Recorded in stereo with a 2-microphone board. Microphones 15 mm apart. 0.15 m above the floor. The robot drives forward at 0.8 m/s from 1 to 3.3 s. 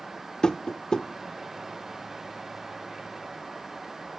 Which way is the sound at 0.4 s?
55° left (ahead or behind).